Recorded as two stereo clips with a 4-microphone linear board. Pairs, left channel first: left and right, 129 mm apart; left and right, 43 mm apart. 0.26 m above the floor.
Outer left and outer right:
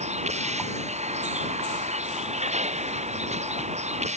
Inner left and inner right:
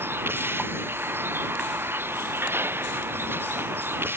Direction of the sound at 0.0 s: 60° right (ahead or behind).